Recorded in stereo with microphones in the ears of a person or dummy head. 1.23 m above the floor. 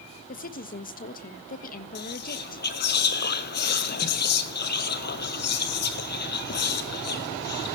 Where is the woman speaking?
55° left (ahead or behind), 1.1 m.